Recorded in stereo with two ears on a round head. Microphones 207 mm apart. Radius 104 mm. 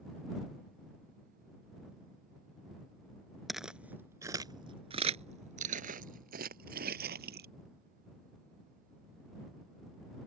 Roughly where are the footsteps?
Centre.